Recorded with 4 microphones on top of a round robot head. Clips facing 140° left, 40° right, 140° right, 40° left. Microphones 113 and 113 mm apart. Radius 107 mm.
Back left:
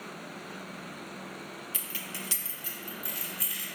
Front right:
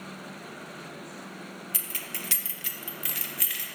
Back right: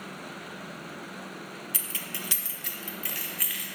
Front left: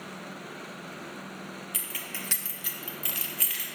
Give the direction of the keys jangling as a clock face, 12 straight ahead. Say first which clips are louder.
Front right 1 dB, back right 1 dB; 3 o'clock.